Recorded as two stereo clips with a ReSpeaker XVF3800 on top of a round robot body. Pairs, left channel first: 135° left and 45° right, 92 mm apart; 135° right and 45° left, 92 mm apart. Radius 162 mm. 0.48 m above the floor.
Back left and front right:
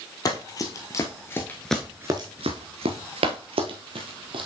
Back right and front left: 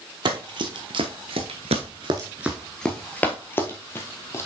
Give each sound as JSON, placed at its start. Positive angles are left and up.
{"t": 0.2, "sound": "running footsteps", "azimuth_deg": 85, "distance_m": 1.2}